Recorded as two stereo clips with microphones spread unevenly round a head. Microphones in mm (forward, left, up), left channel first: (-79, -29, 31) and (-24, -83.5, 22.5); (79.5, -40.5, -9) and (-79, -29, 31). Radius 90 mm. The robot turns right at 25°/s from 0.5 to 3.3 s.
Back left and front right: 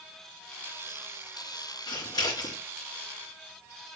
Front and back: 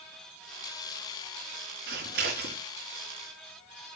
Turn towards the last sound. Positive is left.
turn(degrees=-175)